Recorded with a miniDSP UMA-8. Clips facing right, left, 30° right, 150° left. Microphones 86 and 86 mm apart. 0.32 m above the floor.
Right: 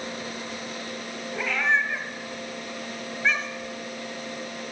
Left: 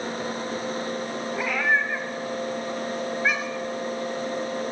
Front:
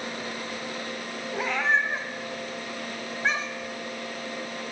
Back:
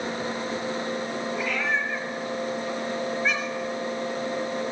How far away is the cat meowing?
About 0.9 m.